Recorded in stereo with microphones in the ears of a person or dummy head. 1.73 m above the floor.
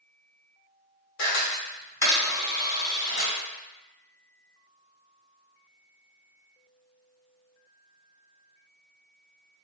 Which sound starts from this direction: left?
A camera shutter, at 1.2 s.